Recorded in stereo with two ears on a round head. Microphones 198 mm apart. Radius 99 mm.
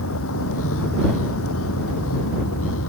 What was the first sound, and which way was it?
A vehicle, 70° left (ahead or behind).